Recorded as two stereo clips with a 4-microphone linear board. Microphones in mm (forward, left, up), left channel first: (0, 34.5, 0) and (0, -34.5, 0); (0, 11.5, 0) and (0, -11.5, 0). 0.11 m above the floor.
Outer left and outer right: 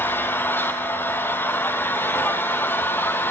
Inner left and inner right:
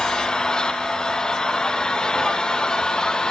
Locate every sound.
0.0 s an engine running: 30° left (ahead or behind), 2 m